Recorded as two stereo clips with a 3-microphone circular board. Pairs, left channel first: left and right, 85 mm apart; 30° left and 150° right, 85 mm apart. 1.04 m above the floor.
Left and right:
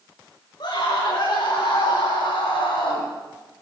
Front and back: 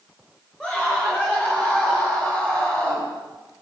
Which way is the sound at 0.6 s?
110° left.